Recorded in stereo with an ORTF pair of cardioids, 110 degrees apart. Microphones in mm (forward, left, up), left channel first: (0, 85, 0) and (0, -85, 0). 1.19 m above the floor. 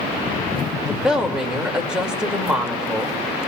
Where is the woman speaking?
5° right, 2.5 m.